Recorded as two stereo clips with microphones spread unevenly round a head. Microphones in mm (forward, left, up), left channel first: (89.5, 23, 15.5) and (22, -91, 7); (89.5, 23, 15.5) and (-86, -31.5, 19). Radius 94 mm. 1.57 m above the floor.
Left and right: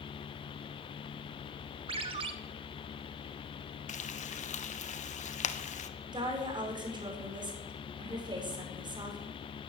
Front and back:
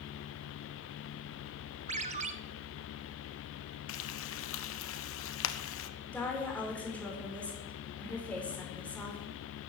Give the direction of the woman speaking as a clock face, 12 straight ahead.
2 o'clock.